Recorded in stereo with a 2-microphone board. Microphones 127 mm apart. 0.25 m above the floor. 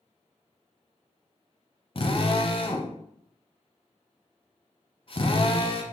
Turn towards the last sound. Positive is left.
turn(degrees=45)  # may be behind; listen again after turning